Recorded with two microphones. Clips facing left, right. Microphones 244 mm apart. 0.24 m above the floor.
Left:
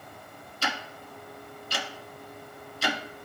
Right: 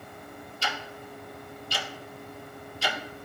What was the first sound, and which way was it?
Ticking, 70° left (ahead or behind).